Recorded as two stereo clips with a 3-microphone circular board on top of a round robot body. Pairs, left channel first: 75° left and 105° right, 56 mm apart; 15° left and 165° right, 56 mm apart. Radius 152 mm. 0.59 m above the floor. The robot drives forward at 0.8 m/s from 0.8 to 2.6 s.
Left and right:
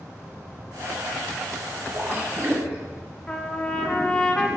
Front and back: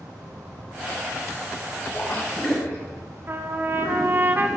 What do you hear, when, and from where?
1.9 s a splash: 50° right, 4 m; by 2.9 s 55° right, 3.5 m
3.3 s a trumpet: 145° left, 1.0 m